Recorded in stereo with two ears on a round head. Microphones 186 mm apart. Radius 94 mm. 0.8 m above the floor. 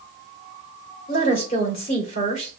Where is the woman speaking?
35° left (ahead or behind), 2 m.